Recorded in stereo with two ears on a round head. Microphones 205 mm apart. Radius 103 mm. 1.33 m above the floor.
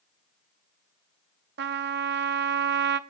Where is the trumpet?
50° right (ahead or behind), 0.7 m.